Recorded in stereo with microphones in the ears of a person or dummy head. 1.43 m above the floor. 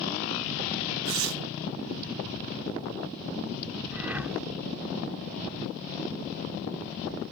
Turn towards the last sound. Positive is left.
turn(degrees=-10)  # may be behind; listen again after turning